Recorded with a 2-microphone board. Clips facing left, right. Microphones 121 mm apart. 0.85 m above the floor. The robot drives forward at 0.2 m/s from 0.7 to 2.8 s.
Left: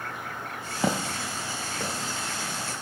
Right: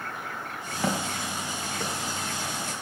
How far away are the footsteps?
About 1.3 m.